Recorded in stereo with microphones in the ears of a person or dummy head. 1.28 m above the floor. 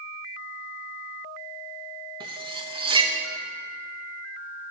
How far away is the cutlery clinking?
About 0.7 m.